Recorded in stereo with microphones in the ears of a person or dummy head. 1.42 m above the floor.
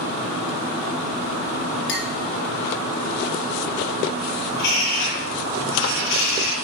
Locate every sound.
1.9 s a clink: 60° left (ahead or behind), 3 m
4.5 s a bird: 65° left (ahead or behind), 7 m